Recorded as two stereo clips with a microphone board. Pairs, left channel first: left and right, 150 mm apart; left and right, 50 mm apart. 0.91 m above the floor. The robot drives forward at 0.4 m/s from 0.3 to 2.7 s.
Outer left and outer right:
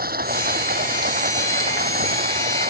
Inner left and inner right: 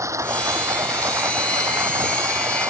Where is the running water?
85° right.